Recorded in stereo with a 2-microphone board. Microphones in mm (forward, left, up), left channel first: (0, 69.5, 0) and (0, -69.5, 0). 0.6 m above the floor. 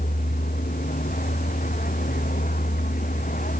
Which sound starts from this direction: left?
A vehicle, at 0.0 s.